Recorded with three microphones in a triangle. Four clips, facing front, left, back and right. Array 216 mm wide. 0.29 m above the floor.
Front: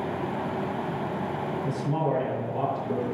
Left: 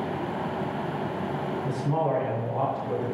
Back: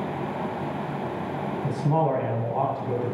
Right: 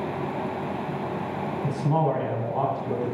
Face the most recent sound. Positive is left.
turn(degrees=-145)